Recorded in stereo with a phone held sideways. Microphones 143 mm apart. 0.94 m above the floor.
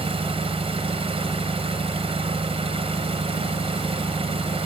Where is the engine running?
45° right (ahead or behind).